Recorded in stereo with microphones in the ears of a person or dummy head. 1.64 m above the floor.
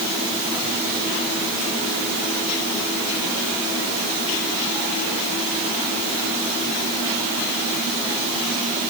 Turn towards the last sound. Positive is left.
No sound to turn to.